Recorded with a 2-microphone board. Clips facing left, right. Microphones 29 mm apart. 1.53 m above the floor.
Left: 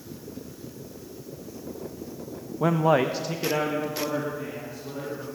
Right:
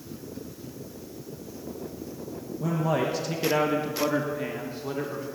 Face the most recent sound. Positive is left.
turn(degrees=-35)  # may be behind; listen again after turning